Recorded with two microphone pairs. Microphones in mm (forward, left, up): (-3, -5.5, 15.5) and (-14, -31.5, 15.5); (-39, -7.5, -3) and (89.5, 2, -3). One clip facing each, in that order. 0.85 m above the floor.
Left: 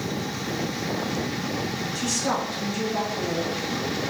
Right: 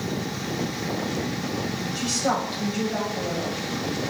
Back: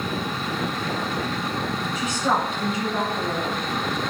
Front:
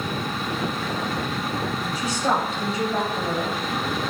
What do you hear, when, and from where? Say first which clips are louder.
1.9 s a woman speaking: right 2 dB, even; 50° right, 4.5 m